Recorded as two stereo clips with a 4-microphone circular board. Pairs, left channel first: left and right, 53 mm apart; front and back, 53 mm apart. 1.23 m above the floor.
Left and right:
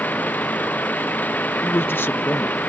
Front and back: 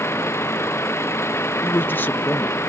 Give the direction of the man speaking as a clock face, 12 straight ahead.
10 o'clock.